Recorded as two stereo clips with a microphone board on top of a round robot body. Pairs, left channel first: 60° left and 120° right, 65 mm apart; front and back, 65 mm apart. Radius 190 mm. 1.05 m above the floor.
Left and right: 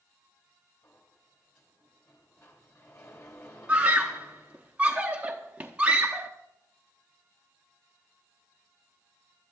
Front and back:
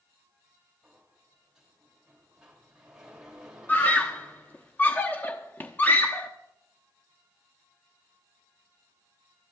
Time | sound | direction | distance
0.8 | a sliding door | 100° left | 3 m
3.7 | a scream | 55° right | 1.0 m